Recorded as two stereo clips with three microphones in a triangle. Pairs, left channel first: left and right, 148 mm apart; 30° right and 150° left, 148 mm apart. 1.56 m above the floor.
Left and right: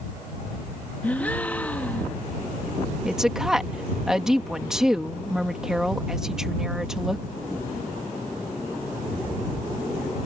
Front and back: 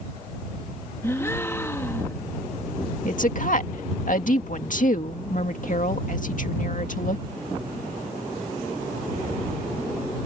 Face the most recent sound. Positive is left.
turn(degrees=-5)